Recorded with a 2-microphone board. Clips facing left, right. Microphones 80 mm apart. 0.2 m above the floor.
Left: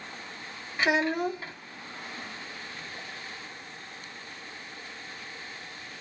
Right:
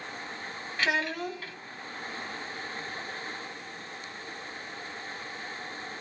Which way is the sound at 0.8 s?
20° left (ahead or behind).